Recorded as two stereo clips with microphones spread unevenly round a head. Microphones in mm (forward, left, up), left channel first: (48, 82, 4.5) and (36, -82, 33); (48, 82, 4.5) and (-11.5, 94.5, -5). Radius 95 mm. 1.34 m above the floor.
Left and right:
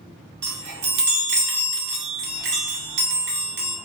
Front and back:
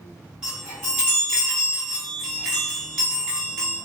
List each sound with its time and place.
0.4 s a chime: 115° right, 0.8 m